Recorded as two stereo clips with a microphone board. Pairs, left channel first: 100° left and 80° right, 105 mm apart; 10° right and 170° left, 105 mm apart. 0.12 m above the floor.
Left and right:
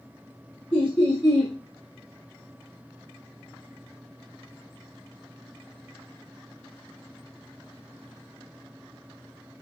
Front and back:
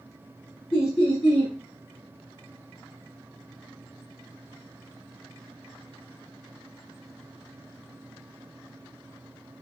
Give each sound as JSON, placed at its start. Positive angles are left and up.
{"t": 0.7, "sound": "laughter", "azimuth_deg": 40, "distance_m": 2.0}